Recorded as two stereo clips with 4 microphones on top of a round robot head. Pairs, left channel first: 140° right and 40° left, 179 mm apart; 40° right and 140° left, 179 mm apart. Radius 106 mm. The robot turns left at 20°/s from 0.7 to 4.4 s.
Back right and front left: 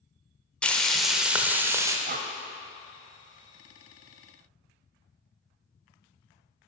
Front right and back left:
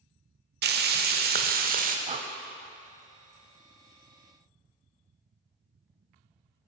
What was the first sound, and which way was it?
Frying, 135° left.